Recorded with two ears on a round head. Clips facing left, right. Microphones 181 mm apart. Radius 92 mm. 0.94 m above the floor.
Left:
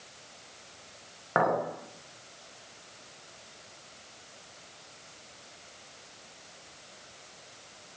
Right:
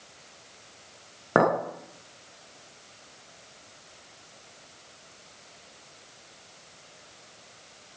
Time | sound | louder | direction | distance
1.4 | a clink | right 5 dB | 50° right (ahead or behind) | 0.7 m